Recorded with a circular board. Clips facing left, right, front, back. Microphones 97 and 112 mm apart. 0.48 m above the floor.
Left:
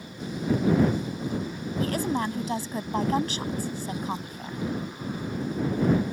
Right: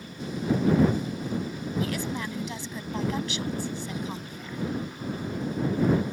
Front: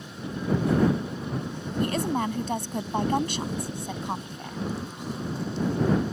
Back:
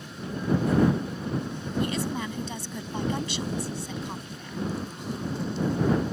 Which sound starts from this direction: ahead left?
A woman speaking, at 1.8 s.